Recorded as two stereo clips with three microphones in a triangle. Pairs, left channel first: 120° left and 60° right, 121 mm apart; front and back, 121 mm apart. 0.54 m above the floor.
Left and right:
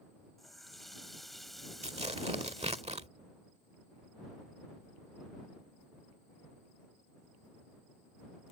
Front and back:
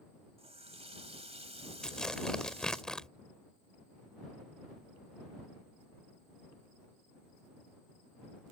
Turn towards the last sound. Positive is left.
turn(degrees=-85)